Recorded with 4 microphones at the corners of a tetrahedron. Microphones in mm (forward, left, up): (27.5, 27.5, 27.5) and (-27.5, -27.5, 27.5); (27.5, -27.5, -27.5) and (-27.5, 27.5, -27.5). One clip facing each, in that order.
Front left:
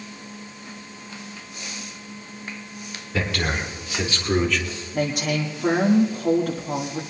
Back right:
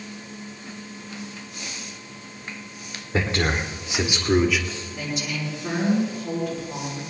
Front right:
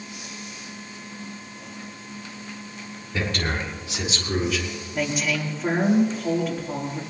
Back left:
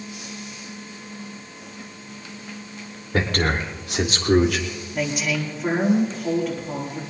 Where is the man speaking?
165° left, 3.5 m; by 4.7 s 140° left, 2.5 m.